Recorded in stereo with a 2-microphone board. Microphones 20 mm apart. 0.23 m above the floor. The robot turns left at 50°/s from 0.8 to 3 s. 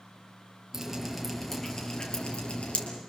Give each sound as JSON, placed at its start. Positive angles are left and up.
{"t": 0.7, "sound": "dripping", "side_deg": -15, "distance_m": 5.5}